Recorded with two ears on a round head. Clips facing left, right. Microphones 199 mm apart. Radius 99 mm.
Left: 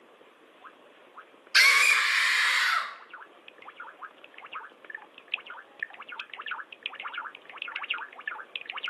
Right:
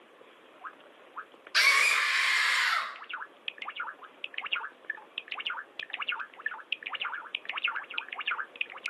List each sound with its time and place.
1.5 s a scream: 35° left (ahead or behind), 1.6 m; by 2.9 s 25° left (ahead or behind), 2.5 m